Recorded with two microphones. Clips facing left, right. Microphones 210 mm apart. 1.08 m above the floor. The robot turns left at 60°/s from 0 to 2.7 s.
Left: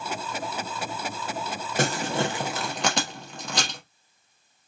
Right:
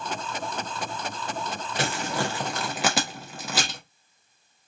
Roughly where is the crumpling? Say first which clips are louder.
Left 3 dB; left.